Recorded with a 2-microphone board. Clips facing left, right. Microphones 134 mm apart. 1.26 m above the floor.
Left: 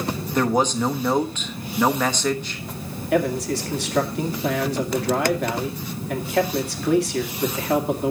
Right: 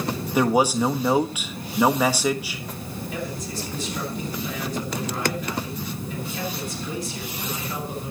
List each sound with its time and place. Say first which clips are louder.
0.3 s a man speaking: right 1 dB; 10° right (ahead or behind), 1.3 m
3.1 s a man speaking: left 13 dB; 70° left (ahead or behind), 2.5 m